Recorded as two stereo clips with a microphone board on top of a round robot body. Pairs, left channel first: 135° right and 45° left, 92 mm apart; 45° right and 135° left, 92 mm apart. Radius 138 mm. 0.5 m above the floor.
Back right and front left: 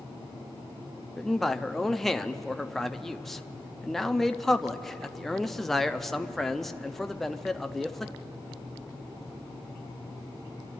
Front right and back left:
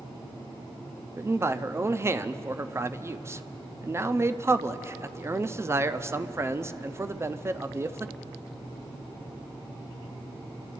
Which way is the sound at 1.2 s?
140° left.